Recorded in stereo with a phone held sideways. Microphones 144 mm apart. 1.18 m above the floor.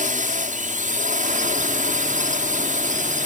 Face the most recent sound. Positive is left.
turn(degrees=-65)  # may be behind; listen again after turning